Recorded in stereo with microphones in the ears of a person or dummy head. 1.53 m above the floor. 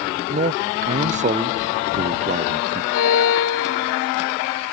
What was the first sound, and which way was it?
A man speaking, 35° right (ahead or behind).